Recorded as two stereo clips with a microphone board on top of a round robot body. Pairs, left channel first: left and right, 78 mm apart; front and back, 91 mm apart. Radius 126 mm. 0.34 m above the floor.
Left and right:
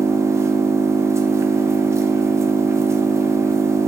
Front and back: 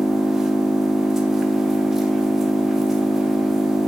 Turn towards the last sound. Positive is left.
turn(degrees=-95)